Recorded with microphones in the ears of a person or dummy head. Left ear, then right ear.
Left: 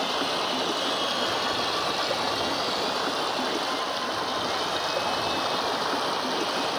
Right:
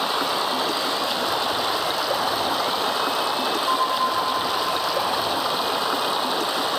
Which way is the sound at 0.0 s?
20° right (ahead or behind).